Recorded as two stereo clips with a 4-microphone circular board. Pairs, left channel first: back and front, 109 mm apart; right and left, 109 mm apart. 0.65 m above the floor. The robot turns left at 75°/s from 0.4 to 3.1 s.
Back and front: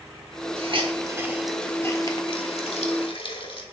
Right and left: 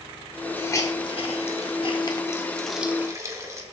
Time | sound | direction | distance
0.6 | a hiss | 20° right | 1.3 m